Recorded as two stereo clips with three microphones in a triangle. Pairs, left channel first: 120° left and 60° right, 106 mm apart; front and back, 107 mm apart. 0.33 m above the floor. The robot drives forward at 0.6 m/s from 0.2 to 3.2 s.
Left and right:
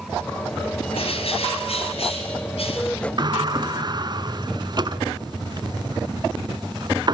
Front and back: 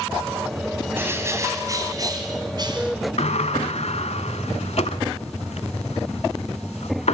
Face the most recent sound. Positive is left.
turn(degrees=-10)